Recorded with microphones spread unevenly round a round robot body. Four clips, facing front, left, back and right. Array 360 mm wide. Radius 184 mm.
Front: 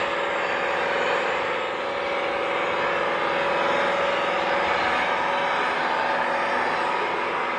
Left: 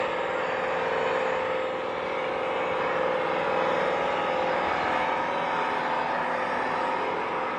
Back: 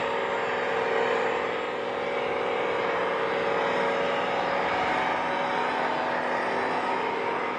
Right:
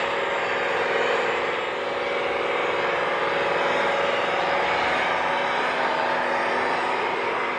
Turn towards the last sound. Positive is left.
turn(degrees=-145)